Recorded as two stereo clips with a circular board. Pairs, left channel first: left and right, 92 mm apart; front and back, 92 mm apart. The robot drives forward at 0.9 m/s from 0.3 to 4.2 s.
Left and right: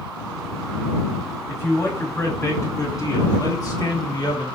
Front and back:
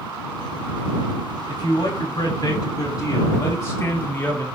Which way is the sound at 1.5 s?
30° left.